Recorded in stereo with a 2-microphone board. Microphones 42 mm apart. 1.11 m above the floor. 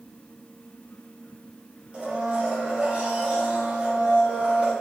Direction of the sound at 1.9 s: 25° right (ahead or behind).